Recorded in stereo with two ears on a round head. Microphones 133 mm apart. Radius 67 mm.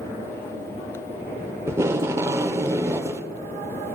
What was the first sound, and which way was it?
Tape being pulled, 15° right (ahead or behind).